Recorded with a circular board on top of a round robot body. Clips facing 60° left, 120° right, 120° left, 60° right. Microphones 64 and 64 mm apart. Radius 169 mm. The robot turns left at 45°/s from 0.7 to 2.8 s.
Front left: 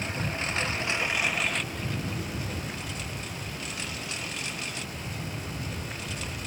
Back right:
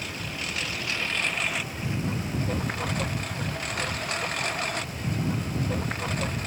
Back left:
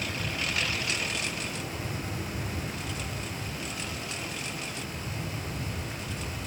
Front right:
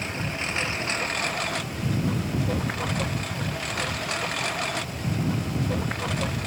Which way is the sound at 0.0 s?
Straight ahead.